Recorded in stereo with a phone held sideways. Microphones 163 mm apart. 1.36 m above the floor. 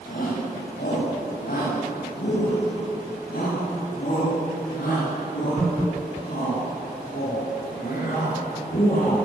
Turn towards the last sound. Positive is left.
turn(degrees=60)  # may be behind; listen again after turning